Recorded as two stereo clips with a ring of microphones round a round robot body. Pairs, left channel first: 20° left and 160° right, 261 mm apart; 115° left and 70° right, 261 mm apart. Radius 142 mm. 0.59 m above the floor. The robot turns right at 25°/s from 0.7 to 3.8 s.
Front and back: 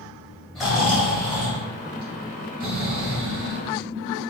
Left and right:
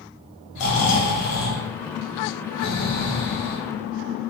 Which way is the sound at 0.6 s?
110° left.